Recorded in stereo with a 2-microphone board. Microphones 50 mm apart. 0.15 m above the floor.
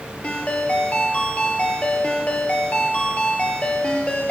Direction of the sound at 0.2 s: 25° left (ahead or behind).